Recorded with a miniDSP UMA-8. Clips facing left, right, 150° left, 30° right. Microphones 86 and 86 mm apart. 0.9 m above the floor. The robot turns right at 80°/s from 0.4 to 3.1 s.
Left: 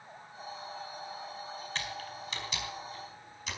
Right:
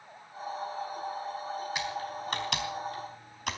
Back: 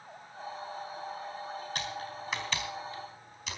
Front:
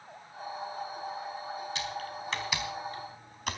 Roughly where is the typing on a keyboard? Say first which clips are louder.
Right 5 dB, front 1 dB; behind.